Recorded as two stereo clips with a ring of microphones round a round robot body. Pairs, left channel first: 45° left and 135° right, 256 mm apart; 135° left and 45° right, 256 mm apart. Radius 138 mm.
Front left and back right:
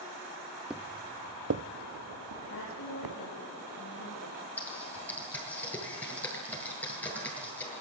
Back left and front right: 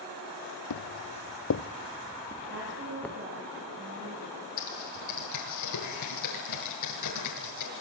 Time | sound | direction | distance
0.7 | footsteps | 140° left | 1.2 m
2.5 | a woman speaking | 5° left | 10 m
4.6 | typing on a keyboard | 130° left | 8.5 m